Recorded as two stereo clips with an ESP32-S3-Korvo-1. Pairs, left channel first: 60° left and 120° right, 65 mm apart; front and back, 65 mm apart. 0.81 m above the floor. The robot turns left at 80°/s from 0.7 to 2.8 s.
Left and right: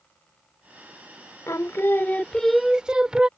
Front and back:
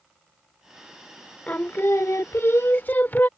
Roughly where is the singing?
Ahead left.